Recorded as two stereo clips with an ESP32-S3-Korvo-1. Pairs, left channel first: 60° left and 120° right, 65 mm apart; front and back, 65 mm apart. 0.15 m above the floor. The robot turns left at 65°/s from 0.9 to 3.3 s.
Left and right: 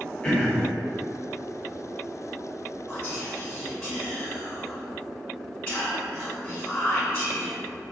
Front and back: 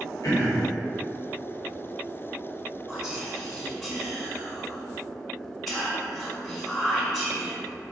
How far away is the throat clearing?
About 1.3 m.